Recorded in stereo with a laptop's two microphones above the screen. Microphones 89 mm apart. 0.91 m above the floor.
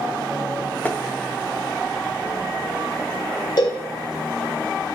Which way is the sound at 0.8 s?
20° left (ahead or behind).